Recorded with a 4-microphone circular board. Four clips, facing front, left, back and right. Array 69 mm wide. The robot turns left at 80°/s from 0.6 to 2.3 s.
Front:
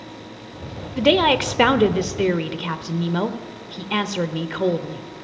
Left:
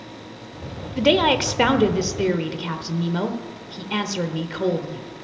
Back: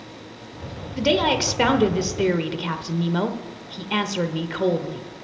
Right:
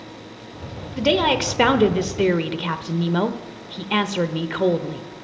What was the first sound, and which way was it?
A woman speaking, 30° left.